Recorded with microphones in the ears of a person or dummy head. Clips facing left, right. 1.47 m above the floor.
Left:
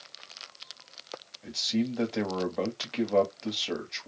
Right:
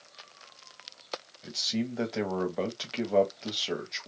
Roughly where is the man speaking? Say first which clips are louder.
Left 4 dB; centre.